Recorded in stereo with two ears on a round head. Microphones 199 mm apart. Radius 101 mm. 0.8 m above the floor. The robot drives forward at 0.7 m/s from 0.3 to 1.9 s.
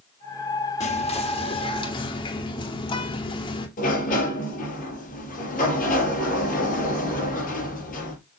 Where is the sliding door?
35° left (ahead or behind), 4 m.